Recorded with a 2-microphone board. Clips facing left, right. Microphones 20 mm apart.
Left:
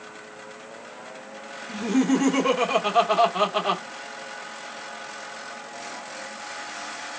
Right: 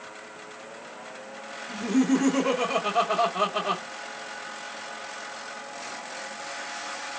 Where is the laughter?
30° left (ahead or behind), 1.0 m.